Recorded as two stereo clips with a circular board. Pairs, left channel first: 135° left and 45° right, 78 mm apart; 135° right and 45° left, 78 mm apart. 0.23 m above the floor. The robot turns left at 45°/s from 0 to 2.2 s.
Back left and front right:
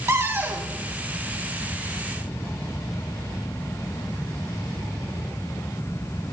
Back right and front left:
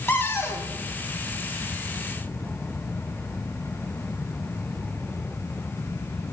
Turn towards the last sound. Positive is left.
turn(degrees=-175)